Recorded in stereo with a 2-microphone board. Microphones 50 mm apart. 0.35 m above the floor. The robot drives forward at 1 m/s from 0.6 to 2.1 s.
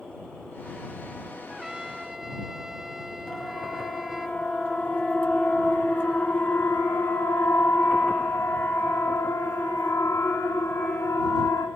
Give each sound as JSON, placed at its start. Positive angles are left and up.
{"t": 1.5, "sound": "a trumpet", "side_deg": -10, "distance_m": 0.7}
{"t": 3.3, "sound": "a siren", "side_deg": 15, "distance_m": 4.0}